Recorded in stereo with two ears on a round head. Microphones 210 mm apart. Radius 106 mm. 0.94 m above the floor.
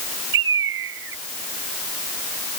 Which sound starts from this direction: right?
A bird, at 0.3 s.